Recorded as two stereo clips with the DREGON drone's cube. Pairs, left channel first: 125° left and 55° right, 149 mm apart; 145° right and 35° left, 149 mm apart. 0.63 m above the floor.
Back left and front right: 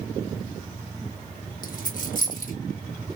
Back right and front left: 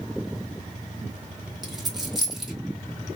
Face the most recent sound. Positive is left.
turn(degrees=120)